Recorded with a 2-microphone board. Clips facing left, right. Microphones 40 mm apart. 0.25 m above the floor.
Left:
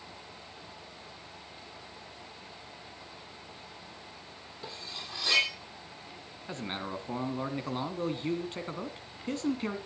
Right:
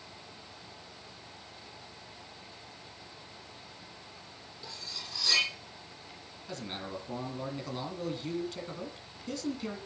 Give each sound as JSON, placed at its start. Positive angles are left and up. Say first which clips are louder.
{"t": 4.6, "sound": "cutlery clinking", "louder": "left 2 dB", "side_deg": 35, "distance_m": 6.5}
{"t": 6.5, "sound": "a man speaking", "louder": "left 3 dB", "side_deg": 35, "distance_m": 2.0}